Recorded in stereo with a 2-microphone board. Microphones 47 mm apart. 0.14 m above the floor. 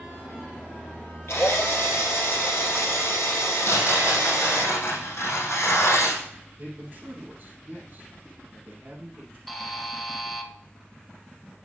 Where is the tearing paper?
70° left (ahead or behind), 4 m.